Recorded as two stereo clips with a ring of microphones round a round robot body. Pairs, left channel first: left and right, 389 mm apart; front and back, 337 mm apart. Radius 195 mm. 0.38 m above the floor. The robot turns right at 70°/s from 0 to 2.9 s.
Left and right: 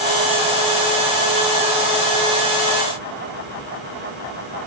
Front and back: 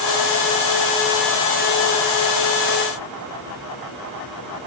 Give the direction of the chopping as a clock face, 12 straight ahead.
I don't hear chopping.